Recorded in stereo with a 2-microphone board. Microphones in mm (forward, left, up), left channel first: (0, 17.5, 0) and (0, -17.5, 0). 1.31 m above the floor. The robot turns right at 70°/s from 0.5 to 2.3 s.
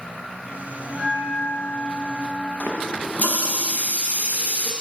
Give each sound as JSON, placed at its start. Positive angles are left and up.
{"t": 0.9, "sound": "a bell", "azimuth_deg": -60, "distance_m": 2.0}
{"t": 2.6, "sound": "a running tap", "side_deg": 50, "distance_m": 0.6}